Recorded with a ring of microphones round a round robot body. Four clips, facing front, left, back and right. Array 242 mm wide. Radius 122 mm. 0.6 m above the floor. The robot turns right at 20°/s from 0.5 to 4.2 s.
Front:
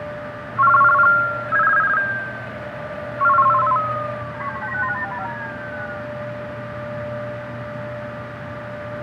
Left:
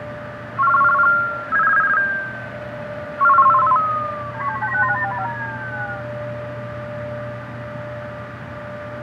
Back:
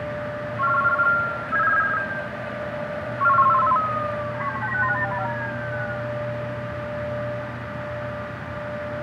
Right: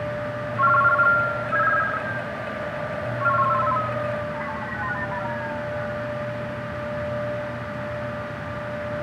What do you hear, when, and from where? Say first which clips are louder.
0.6 s a ringtone: left 4 dB, front 8 dB; 20° left, 0.6 m; by 6.0 s 90° left, 0.6 m